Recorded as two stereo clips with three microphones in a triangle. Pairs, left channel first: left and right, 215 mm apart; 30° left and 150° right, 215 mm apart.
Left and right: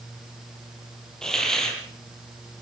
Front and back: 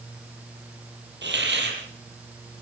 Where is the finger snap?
I don't hear a finger snap.